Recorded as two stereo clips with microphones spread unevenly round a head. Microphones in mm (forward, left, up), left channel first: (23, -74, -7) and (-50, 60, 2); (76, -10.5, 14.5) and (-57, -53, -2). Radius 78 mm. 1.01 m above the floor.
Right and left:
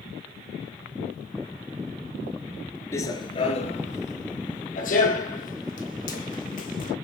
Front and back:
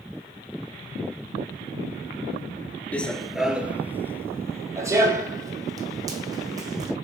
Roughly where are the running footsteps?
Ahead.